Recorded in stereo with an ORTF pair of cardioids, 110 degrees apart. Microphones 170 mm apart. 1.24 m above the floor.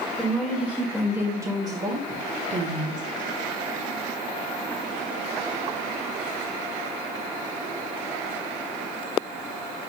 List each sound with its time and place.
0.2 s a woman speaking: 5° right, 1.9 m; by 3.0 s 55° right, 1.3 m